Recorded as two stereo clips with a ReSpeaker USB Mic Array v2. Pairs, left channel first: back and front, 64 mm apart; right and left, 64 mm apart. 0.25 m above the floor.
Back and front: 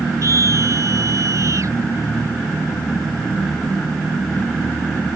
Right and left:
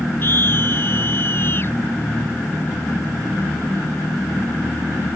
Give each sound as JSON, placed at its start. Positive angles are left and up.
{"t": 0.2, "sound": "a scream", "azimuth_deg": -35}